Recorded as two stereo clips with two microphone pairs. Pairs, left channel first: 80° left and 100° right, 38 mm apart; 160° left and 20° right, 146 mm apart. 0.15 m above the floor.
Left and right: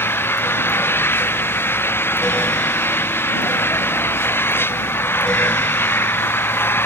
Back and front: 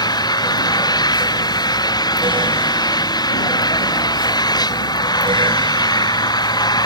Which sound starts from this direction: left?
An engine running, at 0.0 s.